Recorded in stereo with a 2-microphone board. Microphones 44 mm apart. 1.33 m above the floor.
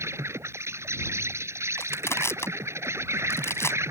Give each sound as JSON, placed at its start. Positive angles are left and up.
{"t": 0.0, "sound": "an insect", "side_deg": -85}
{"t": 1.8, "sound": "crushing", "side_deg": 70}